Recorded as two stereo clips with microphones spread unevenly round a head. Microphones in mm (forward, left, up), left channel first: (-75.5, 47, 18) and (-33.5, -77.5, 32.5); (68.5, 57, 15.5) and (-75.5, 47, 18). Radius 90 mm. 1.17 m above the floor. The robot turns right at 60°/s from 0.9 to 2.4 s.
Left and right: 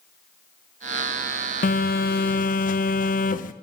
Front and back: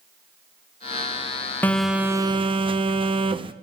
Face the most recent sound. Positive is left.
turn(degrees=130)